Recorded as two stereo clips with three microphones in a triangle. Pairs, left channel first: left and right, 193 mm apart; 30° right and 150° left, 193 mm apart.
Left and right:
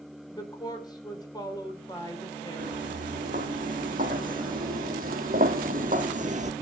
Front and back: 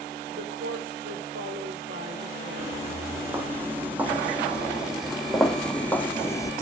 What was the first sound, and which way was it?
A woman speaking, 160° left.